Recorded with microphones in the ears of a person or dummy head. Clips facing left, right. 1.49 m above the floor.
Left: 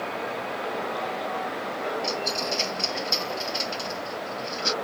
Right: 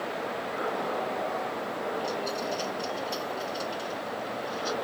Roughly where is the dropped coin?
Left.